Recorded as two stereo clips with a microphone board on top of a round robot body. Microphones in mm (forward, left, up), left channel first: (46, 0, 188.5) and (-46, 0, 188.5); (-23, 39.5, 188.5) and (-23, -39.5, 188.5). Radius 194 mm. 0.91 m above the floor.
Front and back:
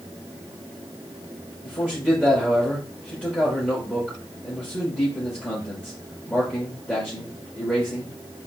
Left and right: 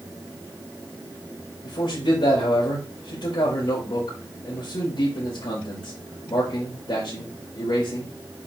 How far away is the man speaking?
About 4.5 m.